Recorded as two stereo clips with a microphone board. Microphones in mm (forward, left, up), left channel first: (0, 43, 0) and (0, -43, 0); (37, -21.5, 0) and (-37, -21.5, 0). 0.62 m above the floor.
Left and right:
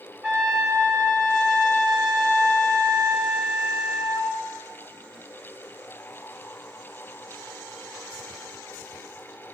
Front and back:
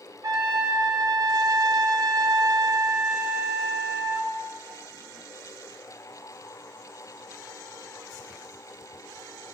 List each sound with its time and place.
0.2 s a trumpet: 150° right, 2.5 m